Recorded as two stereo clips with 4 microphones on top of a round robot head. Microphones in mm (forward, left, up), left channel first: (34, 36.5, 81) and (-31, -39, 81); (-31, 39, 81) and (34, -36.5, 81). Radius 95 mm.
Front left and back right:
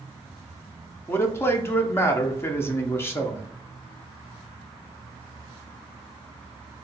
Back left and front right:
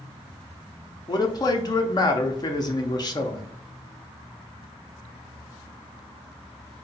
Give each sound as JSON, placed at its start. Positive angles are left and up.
{"t": 1.1, "sound": "a man speaking", "azimuth_deg": 105, "distance_m": 0.7}